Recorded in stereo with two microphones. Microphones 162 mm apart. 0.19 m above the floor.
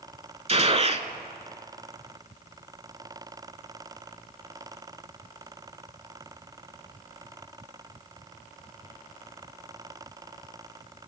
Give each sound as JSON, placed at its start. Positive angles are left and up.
{"t": 0.5, "sound": "a gunshot", "side_deg": -40, "distance_m": 0.5}